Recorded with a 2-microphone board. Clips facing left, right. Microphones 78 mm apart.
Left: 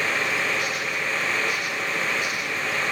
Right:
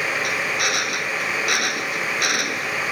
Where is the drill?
80° right.